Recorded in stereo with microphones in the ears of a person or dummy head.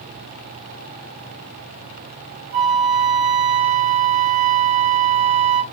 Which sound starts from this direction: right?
A flute, at 2.5 s.